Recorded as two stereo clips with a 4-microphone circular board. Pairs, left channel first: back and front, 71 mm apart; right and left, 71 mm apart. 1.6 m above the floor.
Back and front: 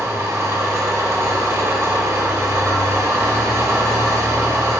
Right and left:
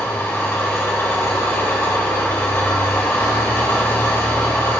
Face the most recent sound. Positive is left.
turn(degrees=-40)